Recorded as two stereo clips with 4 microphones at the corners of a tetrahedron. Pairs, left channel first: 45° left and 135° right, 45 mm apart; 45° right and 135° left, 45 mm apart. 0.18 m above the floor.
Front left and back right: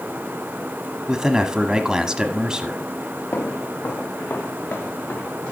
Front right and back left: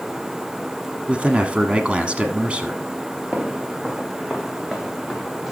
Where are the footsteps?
80° left, 1.6 m; by 5.5 s 45° left, 3.5 m.